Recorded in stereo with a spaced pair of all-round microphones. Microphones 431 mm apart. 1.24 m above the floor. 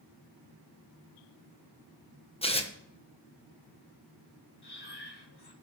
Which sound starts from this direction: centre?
Tearing paper, at 2.4 s.